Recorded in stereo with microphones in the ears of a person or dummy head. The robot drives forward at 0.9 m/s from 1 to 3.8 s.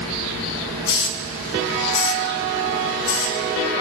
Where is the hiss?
65° left (ahead or behind), 1.6 m; by 3.4 s 45° left (ahead or behind), 2 m.